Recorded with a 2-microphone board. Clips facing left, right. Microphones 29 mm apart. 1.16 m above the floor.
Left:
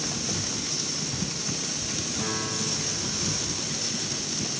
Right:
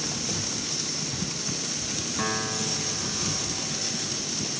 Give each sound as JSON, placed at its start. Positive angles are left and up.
{"t": 2.2, "sound": "a piano", "side_deg": -80, "distance_m": 7.0}